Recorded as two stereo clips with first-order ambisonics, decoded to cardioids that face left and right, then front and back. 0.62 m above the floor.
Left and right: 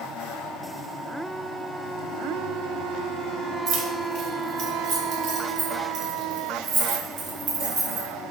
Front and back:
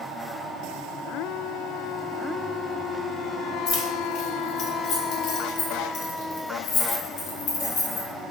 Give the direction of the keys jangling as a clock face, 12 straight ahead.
2 o'clock.